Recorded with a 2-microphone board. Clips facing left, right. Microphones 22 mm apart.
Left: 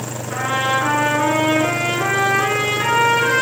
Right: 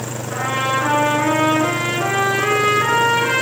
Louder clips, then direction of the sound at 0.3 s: Left 1 dB; 5° left (ahead or behind).